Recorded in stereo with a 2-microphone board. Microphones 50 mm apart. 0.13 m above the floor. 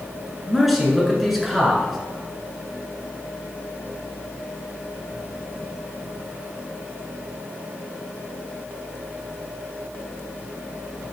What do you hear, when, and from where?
0.5 s a man speaking: 5° right (ahead or behind), 1.2 m